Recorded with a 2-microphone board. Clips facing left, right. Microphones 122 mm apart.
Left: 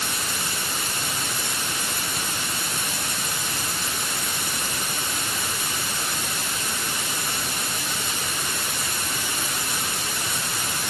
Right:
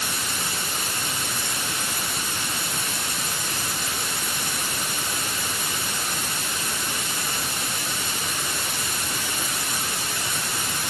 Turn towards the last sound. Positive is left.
No sound to turn to.